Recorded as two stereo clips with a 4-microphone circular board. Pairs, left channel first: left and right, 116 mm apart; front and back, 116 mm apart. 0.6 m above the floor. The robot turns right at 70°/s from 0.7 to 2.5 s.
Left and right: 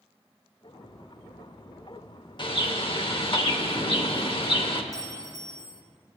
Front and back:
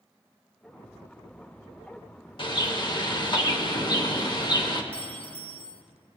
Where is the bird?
45° left, 0.8 m; by 4.8 s 50° left, 0.8 m.